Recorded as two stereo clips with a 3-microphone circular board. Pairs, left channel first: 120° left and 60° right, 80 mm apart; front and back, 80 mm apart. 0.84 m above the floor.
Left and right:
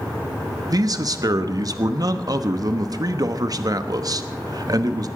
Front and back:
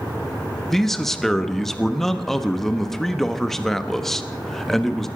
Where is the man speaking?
85° right, 1.0 m.